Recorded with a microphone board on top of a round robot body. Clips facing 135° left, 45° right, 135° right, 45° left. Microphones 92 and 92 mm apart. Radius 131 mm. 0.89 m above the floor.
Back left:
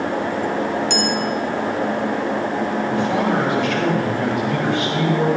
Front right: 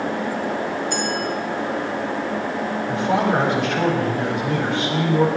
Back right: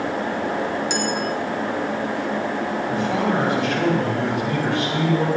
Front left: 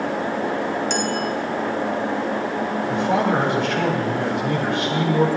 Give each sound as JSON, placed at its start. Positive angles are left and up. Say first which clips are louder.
{"t": 0.9, "sound": "a clink", "louder": "back left 3 dB, front left 1 dB", "azimuth_deg": 140, "distance_m": 2.5}
{"t": 2.9, "sound": "a man speaking", "louder": "front right 2 dB, front left 3 dB", "azimuth_deg": 15, "distance_m": 6.0}